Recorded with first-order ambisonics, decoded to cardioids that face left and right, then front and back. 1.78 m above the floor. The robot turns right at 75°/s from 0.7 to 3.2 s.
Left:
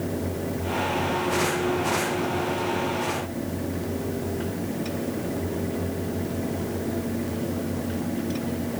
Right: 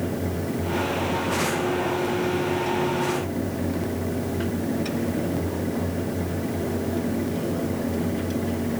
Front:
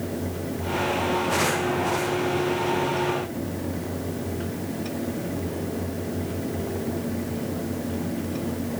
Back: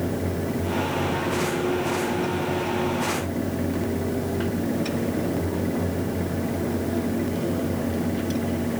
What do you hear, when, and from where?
Only background noise.